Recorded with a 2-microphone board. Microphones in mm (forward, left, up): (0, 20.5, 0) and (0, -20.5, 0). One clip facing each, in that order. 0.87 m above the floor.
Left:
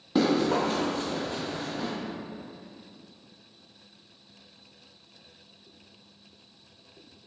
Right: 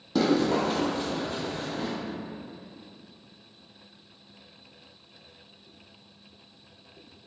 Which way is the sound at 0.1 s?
20° left (ahead or behind).